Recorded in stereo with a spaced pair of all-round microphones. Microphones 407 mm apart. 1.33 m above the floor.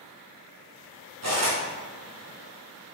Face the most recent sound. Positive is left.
turn(degrees=-40)  # may be behind; listen again after turning